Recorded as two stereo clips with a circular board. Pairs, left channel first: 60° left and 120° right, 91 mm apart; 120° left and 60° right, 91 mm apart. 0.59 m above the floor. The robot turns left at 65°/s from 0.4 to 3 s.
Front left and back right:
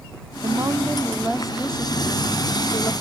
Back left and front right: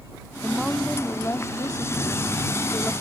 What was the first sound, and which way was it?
A woman speaking, 140° right.